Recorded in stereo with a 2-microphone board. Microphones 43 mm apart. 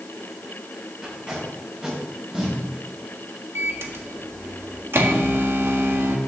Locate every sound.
1.0 s tape being pulled: 20° right (ahead or behind), 4.5 m
3.5 s a microwave: 65° right (ahead or behind), 1.3 m